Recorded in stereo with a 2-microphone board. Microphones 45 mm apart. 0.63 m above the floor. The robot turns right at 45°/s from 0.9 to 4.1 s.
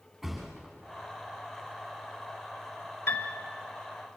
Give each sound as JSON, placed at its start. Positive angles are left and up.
{"t": 0.2, "sound": "a thud", "side_deg": 5, "distance_m": 8.5}
{"t": 3.1, "sound": "a piano", "side_deg": 65, "distance_m": 1.9}